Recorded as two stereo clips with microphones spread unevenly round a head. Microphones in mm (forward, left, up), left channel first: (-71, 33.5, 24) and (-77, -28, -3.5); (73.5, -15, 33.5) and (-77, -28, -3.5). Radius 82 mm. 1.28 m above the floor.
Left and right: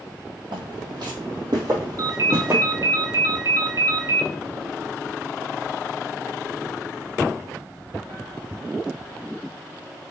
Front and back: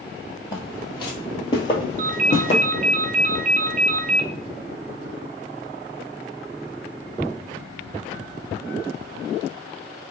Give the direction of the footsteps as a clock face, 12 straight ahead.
1 o'clock.